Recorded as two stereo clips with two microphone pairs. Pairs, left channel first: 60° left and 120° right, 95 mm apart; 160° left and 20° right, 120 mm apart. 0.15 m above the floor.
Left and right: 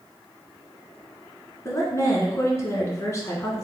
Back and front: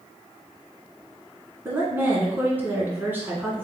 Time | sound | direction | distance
1.6 | a woman speaking | 35° left | 1.2 m